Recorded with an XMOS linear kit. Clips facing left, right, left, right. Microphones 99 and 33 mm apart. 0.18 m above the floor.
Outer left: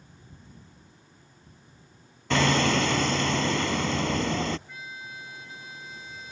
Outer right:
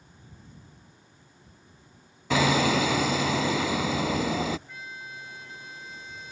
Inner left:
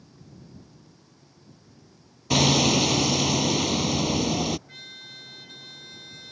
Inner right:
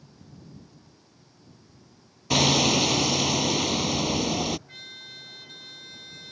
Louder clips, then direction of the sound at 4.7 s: Even, even; centre (ahead or behind).